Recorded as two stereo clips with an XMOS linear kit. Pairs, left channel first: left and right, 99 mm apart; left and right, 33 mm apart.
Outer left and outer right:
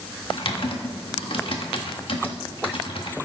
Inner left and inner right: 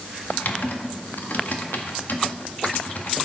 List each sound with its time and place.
0.3 s typing on a keyboard: 65° left (ahead or behind), 1.4 m